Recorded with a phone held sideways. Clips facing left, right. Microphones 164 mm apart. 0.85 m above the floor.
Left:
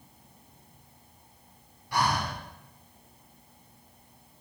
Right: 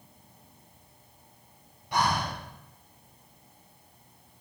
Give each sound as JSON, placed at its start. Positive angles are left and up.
{"t": 1.9, "sound": "breathing", "side_deg": -20, "distance_m": 0.9}